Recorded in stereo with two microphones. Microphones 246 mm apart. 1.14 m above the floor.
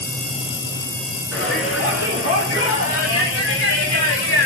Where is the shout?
60° left (ahead or behind), 5 m; by 4.5 s 70° left (ahead or behind), 1.7 m.